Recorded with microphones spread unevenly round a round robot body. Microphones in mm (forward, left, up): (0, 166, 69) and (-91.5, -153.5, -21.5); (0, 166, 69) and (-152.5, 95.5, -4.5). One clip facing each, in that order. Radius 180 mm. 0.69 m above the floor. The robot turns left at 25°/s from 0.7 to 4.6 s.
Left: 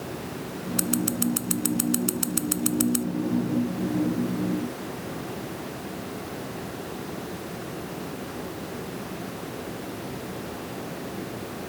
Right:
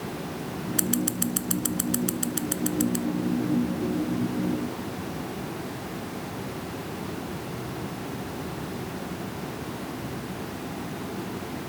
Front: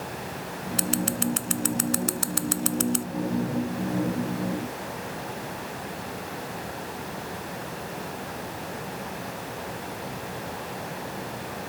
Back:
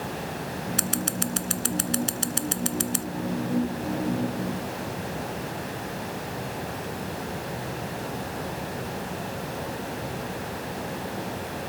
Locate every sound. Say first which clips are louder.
0.8 s scissors: left 2 dB, front 5 dB; straight behind; by 3.1 s 120° left